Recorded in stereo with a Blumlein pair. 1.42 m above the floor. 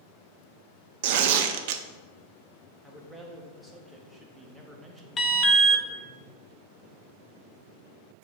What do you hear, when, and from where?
1.0 s tearing paper: 50° right, 0.5 m
2.8 s a man speaking: 5° right, 1.3 m
5.2 s an alarm: 20° left, 0.9 m